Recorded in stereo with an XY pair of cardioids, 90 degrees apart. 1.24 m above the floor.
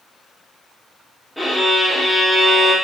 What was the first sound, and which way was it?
A violin, 5° right.